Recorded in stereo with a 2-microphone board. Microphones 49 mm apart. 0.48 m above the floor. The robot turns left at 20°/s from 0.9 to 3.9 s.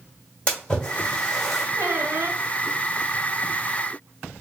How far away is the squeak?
About 0.7 m.